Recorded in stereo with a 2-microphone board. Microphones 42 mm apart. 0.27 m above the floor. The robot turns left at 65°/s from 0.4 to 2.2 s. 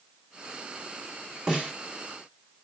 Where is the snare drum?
15° right (ahead or behind), 1.1 m; by 1.7 s 30° right (ahead or behind), 1.1 m.